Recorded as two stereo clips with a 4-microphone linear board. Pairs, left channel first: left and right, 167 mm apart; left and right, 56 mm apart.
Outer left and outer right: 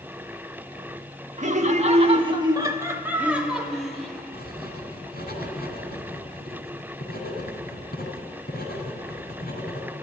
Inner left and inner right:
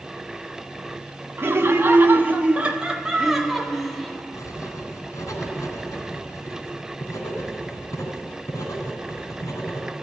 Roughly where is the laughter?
Right.